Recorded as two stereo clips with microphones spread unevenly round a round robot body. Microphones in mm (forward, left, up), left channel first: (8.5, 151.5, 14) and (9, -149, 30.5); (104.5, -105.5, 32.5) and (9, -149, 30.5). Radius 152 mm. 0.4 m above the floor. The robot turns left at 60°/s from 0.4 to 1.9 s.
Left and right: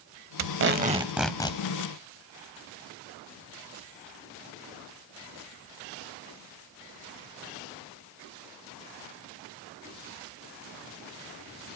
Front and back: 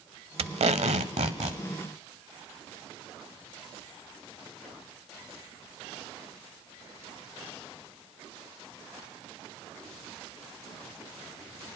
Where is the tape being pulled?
130° right, 0.8 m; by 1.6 s 160° left, 0.8 m.